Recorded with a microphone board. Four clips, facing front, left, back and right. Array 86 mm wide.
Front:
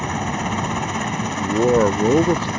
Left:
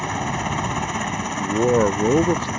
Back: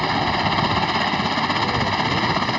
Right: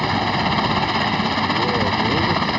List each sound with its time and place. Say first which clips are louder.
0.0 s a helicopter: right 5 dB, back 3 dB; 135° right; by 2.6 s 125° right
1.4 s a man speaking: left 7 dB, front 5 dB; 35° left